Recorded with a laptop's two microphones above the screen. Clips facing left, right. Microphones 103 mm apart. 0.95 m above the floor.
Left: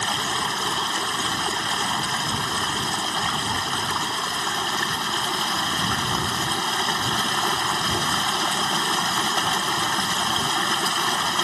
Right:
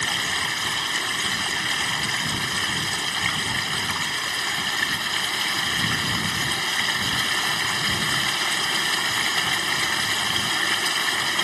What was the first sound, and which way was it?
Running water, 30° left (ahead or behind).